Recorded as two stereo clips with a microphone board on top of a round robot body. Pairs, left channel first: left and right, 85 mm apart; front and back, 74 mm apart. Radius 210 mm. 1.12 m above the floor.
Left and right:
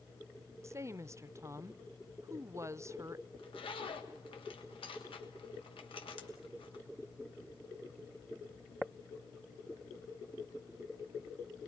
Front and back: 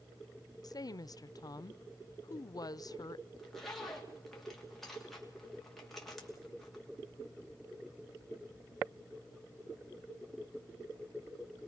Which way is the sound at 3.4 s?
90° left.